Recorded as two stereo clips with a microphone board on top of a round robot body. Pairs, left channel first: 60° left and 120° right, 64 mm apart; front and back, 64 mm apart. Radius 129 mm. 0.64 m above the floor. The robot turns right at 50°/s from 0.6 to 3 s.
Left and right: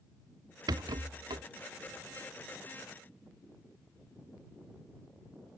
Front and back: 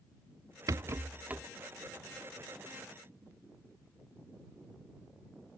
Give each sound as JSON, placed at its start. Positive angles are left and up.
{"t": 0.7, "sound": "a rattle", "azimuth_deg": -140}